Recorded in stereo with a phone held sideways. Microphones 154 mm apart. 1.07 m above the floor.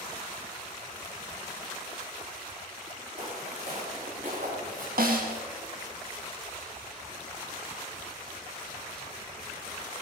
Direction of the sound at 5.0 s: 70° right (ahead or behind).